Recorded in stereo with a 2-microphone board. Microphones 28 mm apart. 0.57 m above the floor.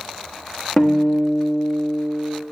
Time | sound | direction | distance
0.8 | a guitar | 25° left (ahead or behind) | 1.4 m